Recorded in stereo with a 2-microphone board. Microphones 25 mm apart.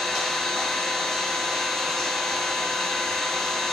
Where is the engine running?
10° left (ahead or behind), 1.7 m.